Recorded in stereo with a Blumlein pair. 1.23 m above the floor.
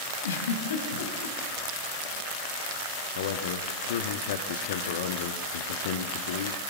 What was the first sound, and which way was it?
A giggle, 65° left.